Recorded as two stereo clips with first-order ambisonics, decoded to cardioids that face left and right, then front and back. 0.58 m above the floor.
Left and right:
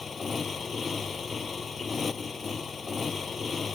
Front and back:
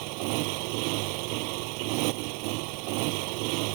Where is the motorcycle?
165° left.